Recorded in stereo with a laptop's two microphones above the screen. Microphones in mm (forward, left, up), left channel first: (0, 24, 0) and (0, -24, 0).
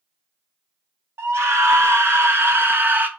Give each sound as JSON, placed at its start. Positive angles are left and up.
{"t": 1.2, "sound": "a scream", "side_deg": -75, "distance_m": 1.8}